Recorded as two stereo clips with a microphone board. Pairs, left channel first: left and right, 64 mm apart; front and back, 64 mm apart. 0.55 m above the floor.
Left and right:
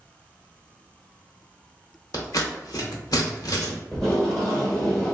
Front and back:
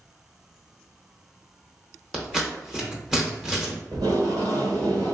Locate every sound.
2.1 s scissors: 100° left, 0.7 m
3.9 s tape being pulled: 175° left, 1.4 m